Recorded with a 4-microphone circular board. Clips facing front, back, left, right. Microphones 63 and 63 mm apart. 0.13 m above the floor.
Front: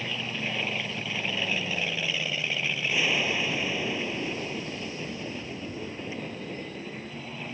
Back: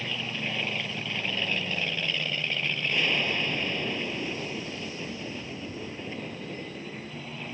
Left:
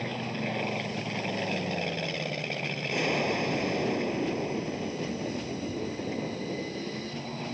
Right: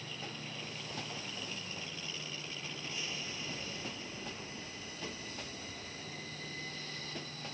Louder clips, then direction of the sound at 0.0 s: Front 1 dB, left 12 dB; 85° left.